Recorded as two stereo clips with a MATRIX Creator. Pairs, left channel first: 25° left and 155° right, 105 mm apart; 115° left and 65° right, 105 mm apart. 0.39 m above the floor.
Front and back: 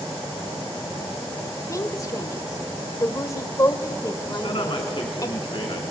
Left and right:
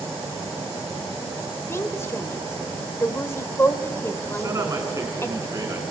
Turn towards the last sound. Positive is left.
turn(degrees=-10)